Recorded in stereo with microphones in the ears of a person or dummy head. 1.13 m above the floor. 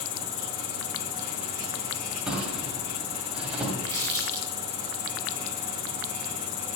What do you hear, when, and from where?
0.0 s an insect: 80° left, 0.8 m
2.3 s a drawer: 5° right (ahead or behind), 1.8 m
3.9 s crumpling: 15° left (ahead or behind), 1.2 m